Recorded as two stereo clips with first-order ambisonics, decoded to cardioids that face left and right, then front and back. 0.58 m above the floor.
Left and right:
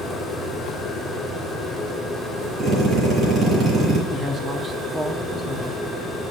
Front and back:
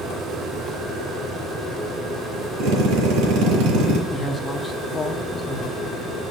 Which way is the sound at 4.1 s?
50° right.